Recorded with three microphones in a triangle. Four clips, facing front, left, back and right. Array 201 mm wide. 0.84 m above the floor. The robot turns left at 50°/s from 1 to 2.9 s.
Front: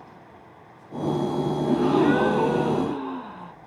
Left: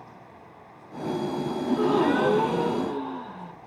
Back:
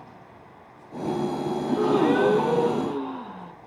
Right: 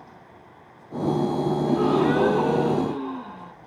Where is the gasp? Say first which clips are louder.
Even, front 1 dB; 60° left, 3 m; by 3.5 s 5° right, 3 m.